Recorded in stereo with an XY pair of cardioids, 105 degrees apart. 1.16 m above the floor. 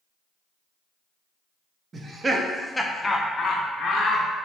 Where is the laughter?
40° right, 0.8 m; by 4.3 s 65° left, 1.1 m.